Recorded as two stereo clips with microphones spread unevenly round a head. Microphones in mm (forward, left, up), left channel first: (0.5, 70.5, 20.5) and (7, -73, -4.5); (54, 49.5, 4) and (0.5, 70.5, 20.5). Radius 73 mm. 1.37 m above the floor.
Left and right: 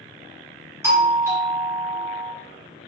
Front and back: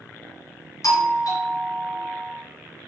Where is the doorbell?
15° right, 2.5 m.